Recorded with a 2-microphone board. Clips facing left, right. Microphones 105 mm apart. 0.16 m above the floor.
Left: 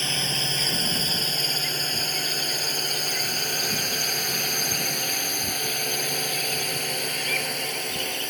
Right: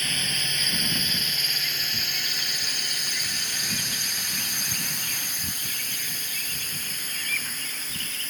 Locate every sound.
0.0 s a drone: 30° left (ahead or behind); by 8.3 s 65° left (ahead or behind)